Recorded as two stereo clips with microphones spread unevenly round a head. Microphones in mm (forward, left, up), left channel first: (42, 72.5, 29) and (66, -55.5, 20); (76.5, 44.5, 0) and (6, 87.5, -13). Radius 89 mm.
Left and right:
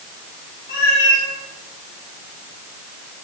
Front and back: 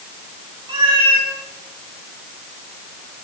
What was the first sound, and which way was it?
A cat meowing, 135° left.